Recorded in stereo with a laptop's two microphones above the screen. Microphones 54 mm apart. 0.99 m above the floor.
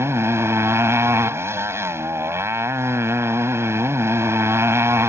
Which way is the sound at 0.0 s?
55° right (ahead or behind).